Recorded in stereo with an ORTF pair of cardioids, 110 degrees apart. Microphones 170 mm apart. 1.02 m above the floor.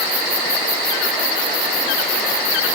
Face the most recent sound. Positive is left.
No sound to turn to.